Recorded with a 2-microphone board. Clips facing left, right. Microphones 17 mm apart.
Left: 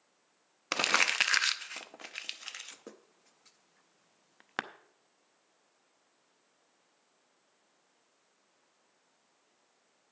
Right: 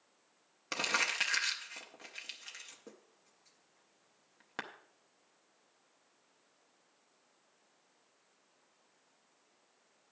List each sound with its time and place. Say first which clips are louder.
0.7 s crumpling: left 5 dB; 30° left (ahead or behind), 0.6 m